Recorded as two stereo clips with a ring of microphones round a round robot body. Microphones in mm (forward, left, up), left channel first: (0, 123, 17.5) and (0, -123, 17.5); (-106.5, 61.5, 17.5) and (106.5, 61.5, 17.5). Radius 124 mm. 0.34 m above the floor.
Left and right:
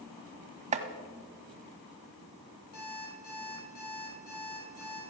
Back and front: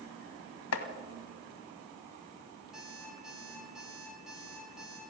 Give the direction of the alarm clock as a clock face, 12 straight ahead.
9 o'clock.